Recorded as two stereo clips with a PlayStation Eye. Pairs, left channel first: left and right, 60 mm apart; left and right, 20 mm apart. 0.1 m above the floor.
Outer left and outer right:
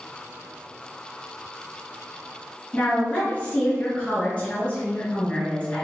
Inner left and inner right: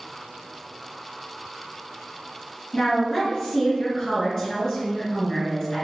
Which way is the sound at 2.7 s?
20° left (ahead or behind).